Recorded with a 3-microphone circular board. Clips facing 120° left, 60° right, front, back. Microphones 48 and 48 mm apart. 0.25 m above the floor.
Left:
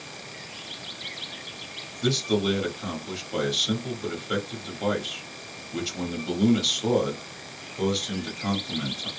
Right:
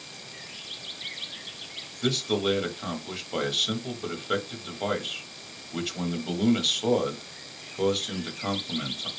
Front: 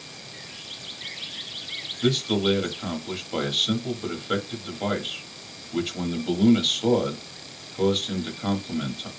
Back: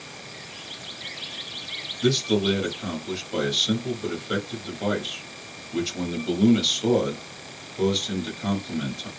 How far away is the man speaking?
About 1.1 m.